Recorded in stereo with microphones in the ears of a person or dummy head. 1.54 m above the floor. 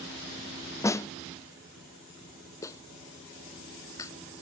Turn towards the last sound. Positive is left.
turn(degrees=20)  # may be behind; listen again after turning